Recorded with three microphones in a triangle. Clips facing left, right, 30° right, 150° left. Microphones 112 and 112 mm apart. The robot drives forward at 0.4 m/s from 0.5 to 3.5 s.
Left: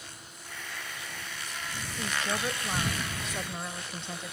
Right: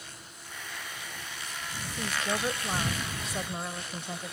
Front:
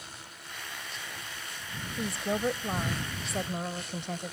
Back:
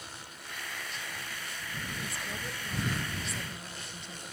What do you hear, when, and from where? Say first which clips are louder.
2.0 s a woman speaking: right 1 dB, front 9 dB; 10° right